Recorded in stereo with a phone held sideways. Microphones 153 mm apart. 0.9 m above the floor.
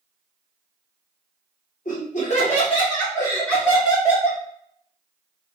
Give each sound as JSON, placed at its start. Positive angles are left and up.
{"t": 1.9, "sound": "laughter", "side_deg": 60, "distance_m": 1.2}